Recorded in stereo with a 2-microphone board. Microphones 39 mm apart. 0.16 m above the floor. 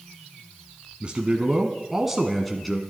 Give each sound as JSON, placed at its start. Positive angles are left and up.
{"t": 1.0, "sound": "a man speaking", "side_deg": -30, "distance_m": 1.3}